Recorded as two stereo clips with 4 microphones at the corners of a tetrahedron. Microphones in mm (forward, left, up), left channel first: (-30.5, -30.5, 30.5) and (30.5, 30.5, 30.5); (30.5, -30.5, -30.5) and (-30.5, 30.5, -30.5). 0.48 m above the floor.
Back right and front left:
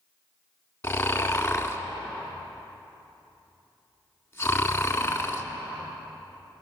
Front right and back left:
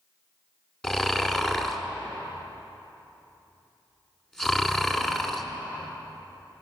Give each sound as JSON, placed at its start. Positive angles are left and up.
{"t": 0.8, "sound": "snoring", "azimuth_deg": -120, "distance_m": 1.4}